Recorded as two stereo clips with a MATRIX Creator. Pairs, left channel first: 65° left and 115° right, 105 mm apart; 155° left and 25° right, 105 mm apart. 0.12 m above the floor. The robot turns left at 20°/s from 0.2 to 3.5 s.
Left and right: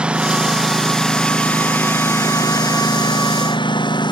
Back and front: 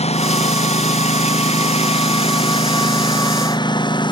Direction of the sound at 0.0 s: 165° left.